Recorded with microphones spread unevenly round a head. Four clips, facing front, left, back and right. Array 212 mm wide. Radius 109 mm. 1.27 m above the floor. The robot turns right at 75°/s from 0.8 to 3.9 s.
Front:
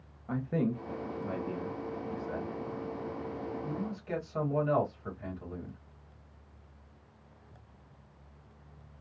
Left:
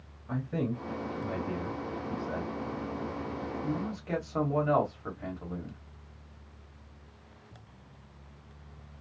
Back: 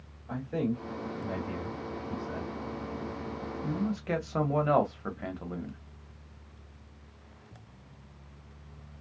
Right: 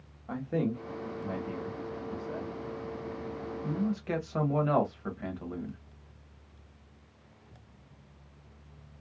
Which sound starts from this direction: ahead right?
A man speaking, at 0.3 s.